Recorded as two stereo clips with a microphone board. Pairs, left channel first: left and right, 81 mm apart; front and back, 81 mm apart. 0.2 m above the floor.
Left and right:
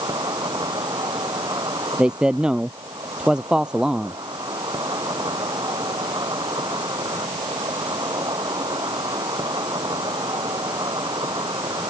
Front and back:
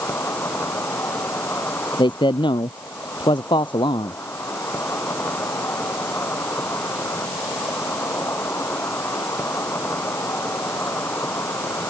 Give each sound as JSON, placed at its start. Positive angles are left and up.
{"t": 0.0, "sound": "an insect", "azimuth_deg": -60}
{"t": 2.0, "sound": "a man speaking", "azimuth_deg": -10}